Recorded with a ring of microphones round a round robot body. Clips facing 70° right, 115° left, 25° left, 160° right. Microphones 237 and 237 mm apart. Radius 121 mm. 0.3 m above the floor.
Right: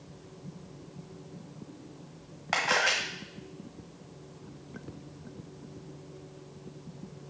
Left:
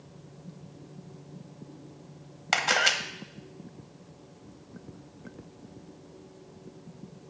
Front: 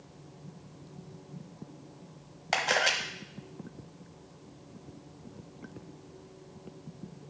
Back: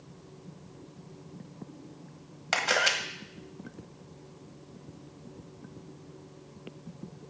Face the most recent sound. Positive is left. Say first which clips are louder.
# even, even
turn(degrees=125)